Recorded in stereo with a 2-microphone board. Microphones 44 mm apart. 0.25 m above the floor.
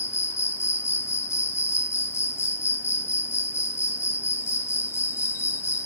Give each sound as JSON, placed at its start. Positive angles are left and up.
{"t": 0.0, "sound": "an insect", "side_deg": 80, "distance_m": 1.0}